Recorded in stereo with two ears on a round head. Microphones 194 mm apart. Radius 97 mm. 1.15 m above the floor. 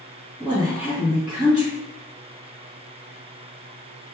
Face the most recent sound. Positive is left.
turn(degrees=-20)  # may be behind; listen again after turning